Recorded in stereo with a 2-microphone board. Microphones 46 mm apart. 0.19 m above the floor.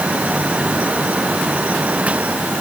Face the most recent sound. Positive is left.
No sound to turn to.